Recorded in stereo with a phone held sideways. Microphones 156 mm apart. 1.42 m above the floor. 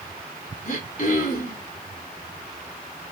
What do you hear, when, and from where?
0.7 s throat clearing: 60° left (ahead or behind), 2 m